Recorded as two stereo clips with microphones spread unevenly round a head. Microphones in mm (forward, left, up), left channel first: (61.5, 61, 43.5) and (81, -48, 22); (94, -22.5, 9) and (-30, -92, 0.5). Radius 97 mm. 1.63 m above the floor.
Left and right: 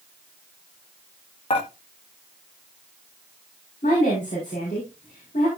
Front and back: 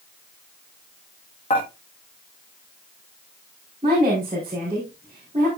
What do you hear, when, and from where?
1.5 s dishes clattering: 85° left, 1.7 m
3.8 s a woman speaking: 145° left, 4.5 m